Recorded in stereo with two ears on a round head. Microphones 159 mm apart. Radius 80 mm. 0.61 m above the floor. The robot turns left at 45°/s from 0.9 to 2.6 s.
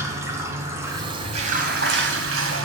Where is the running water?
15° right, 2.0 m; by 2.6 s 95° right, 2.0 m.